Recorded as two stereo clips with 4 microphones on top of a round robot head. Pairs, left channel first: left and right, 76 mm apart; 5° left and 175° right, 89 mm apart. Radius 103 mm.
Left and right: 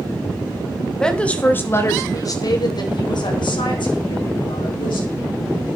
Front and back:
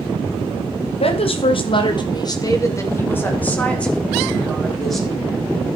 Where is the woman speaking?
10° left, 2.5 m; by 5.1 s 95° left, 5.5 m.